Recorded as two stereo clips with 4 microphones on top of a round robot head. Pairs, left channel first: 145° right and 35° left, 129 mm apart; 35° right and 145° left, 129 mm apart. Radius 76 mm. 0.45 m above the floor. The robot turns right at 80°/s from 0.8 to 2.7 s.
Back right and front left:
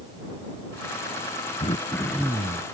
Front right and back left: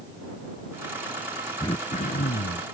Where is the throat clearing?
100° right; by 2.7 s 10° right.